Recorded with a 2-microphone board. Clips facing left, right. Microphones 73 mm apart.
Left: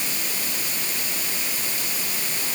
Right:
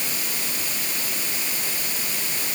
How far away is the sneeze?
No sneeze in this recording.